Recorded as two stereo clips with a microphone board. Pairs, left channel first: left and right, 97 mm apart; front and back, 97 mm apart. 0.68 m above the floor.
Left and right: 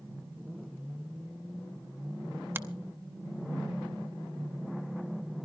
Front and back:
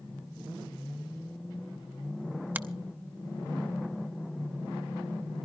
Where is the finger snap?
130° right, 0.8 m.